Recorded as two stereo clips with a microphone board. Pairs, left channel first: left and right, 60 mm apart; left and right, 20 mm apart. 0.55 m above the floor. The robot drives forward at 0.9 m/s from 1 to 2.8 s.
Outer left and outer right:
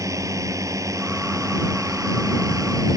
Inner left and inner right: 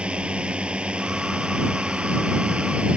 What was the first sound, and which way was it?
A drone, 70° right (ahead or behind).